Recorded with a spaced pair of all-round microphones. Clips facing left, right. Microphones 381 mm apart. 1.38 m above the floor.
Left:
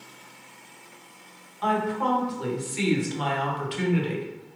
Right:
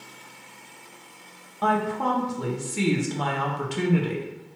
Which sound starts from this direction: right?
A woman speaking, at 1.6 s.